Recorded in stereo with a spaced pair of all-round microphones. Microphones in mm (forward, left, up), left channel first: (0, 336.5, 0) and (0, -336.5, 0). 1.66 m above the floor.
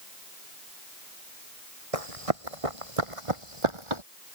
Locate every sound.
1.9 s running footsteps: 55° right (ahead or behind); by 4.0 s 45° right (ahead or behind)